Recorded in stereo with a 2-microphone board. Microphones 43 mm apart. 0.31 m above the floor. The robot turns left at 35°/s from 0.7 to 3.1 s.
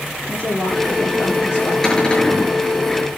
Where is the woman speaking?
155° left, 10 m; by 1.7 s 120° left, 10 m.